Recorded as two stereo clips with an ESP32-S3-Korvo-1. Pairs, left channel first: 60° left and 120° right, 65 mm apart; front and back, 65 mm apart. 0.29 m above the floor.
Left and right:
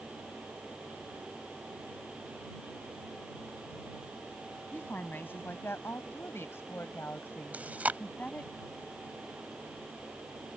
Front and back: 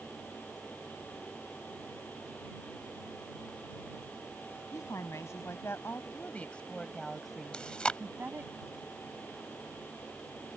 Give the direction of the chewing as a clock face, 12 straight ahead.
2 o'clock.